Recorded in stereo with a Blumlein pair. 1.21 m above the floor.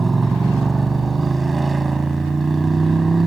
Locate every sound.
0.0 s a motorcycle: 15° right